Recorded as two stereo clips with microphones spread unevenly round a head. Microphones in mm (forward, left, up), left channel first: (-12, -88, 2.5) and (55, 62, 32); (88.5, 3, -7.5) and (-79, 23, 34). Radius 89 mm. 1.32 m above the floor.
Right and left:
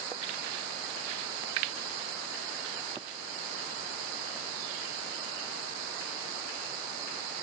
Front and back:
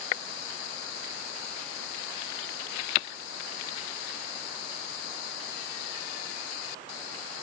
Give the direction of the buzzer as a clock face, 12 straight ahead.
I don't hear a buzzer.